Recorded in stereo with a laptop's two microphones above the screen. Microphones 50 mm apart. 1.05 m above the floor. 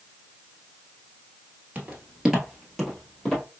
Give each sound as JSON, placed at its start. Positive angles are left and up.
{"t": 1.8, "sound": "footsteps", "side_deg": -30, "distance_m": 1.1}